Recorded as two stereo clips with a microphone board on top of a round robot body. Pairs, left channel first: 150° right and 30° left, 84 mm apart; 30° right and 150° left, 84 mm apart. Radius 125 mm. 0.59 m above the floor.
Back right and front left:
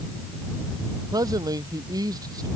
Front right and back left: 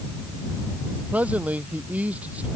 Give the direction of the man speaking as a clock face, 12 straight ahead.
9 o'clock.